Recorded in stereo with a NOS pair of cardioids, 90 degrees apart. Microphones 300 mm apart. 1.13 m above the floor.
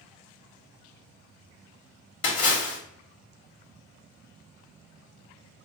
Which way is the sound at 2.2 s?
50° left.